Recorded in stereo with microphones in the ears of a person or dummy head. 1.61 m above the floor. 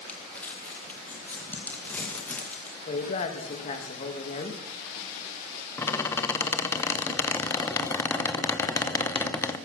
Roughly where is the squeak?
Centre.